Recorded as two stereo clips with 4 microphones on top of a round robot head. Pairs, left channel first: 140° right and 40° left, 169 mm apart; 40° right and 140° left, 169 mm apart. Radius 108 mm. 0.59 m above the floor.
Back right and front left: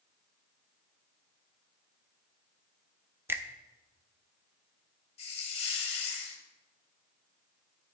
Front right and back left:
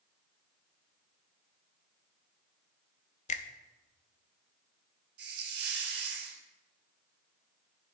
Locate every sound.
3.3 s a finger snap: 30° right, 0.7 m
5.2 s a hiss: 165° left, 1.2 m